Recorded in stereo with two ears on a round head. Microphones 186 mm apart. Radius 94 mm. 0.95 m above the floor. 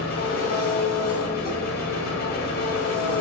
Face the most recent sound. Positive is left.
turn(degrees=50)  # may be behind; listen again after turning